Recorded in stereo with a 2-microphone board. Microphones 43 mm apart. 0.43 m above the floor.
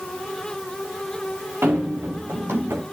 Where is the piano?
No piano in this recording.